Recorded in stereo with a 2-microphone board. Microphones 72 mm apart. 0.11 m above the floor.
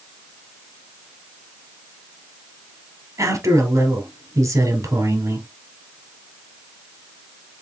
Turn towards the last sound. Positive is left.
turn(degrees=-50)  # may be behind; listen again after turning